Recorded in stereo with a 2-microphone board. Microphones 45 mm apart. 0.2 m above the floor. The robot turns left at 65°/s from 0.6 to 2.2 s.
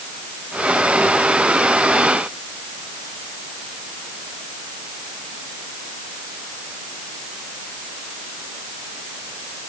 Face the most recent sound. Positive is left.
No sound to turn to.